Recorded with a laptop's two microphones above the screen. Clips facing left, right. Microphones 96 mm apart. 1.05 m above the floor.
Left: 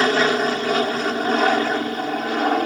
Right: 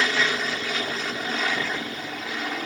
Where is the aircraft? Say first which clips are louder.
Left 7 dB; 45° left (ahead or behind); by 2.7 s 55° left (ahead or behind).